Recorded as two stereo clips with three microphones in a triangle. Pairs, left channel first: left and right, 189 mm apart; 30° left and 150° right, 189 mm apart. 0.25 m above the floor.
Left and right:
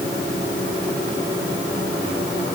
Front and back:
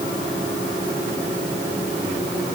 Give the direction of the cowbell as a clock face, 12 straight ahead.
I don't hear a cowbell.